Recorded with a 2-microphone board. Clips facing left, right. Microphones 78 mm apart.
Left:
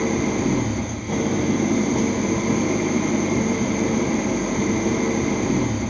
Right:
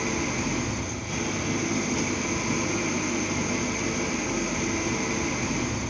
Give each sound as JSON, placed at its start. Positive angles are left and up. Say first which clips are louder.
{"t": 0.0, "sound": "an engine running", "louder": "left 7 dB", "side_deg": 45, "distance_m": 0.8}